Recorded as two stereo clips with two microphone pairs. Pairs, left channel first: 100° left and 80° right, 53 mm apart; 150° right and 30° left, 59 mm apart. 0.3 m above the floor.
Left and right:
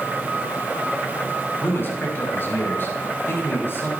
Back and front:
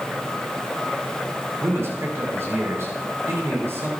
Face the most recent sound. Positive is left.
turn(degrees=65)